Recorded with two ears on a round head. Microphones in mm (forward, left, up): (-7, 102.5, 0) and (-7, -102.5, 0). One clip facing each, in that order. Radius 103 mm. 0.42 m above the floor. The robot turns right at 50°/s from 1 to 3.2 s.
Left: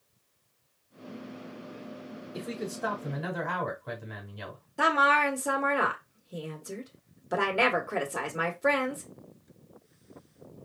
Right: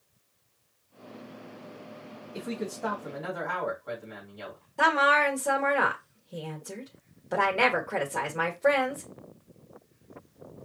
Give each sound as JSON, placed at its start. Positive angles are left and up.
{"t": 2.3, "sound": "a man speaking", "azimuth_deg": 0, "distance_m": 3.0}
{"t": 4.8, "sound": "a woman speaking", "side_deg": 10, "distance_m": 1.4}